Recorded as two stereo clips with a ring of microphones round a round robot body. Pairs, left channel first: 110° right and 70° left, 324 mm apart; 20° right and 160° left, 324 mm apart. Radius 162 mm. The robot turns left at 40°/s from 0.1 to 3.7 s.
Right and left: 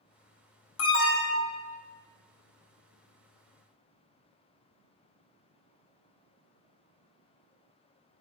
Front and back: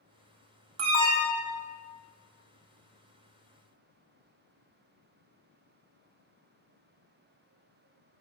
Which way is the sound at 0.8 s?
155° right.